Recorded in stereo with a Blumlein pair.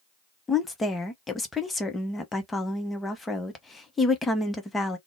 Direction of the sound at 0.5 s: 10° left.